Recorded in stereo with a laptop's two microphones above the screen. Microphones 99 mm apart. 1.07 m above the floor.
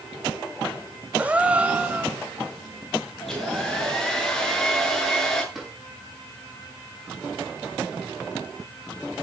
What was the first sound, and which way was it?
A gasp, 15° right (ahead or behind).